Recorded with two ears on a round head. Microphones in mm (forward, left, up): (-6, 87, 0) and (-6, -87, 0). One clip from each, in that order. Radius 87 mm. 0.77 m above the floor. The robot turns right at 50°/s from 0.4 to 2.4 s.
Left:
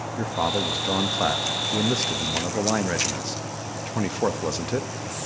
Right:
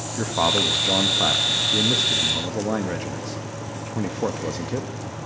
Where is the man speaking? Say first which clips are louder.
Right 5 dB; 15° right, 0.6 m; by 4.9 s 85° left, 0.6 m.